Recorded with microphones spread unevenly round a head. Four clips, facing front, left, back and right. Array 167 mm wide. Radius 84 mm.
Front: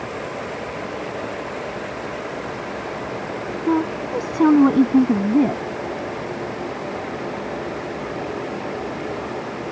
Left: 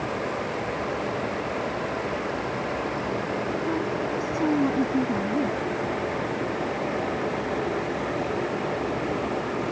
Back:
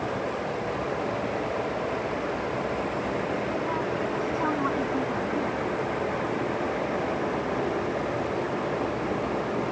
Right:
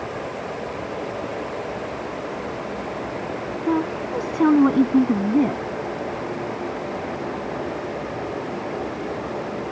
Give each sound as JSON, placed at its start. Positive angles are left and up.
{"t": 3.7, "sound": "a woman speaking", "azimuth_deg": -30}